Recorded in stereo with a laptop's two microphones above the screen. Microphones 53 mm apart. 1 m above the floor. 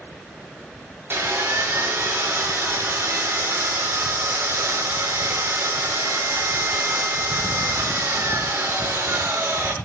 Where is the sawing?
40° right (ahead or behind), 4.5 m.